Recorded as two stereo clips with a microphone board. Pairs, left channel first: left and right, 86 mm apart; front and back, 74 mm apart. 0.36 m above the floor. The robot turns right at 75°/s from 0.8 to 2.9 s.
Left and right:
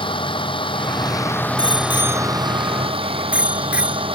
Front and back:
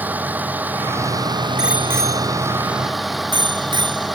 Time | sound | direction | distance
0.0 | a vehicle | 110° left | ?
1.6 | a bicycle bell | 95° left | ?